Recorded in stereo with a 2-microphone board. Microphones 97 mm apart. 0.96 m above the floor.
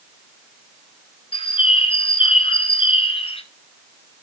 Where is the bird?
70° left (ahead or behind), 1.5 m.